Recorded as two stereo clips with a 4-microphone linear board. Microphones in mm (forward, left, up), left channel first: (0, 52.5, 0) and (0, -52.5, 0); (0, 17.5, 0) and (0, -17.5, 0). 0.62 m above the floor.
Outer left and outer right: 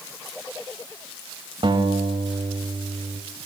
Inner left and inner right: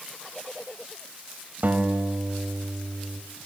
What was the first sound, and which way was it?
A guitar, 55° right (ahead or behind).